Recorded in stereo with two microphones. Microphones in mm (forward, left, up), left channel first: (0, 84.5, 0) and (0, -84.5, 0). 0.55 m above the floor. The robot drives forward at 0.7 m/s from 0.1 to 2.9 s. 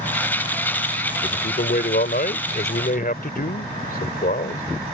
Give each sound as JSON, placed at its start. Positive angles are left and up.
{"t": 1.2, "sound": "a man speaking", "side_deg": 60}